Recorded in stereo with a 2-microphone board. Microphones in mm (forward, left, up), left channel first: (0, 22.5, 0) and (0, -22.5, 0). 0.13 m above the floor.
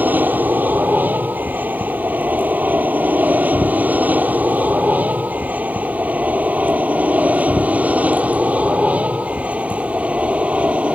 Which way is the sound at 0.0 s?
45° right (ahead or behind).